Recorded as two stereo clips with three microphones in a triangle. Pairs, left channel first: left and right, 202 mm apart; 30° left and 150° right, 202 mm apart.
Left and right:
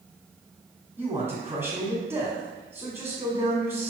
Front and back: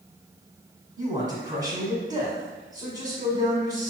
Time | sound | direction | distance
1.0 | a man speaking | 145° right | 1.2 m